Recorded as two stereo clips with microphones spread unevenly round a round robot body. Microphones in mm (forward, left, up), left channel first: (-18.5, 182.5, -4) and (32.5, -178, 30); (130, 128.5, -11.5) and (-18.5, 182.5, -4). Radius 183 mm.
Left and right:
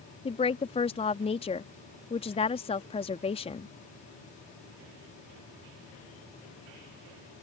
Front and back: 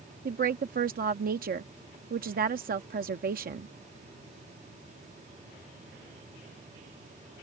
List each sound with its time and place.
0.2 s a woman speaking: 165° left